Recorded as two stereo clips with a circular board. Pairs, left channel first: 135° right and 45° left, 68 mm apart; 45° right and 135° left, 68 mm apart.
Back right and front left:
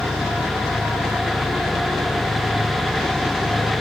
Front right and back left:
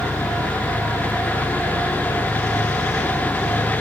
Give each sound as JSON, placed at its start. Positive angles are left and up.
{"t": 0.0, "sound": "an engine running", "azimuth_deg": -10, "distance_m": 10.0}